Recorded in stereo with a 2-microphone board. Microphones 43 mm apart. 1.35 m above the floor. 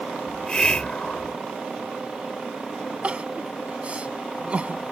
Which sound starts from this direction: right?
Crying, at 3.0 s.